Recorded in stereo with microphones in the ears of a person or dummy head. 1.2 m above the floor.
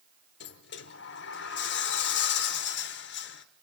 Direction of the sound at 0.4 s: 50° left (ahead or behind).